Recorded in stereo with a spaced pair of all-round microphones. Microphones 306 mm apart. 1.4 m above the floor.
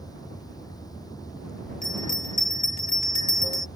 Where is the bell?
65° left (ahead or behind).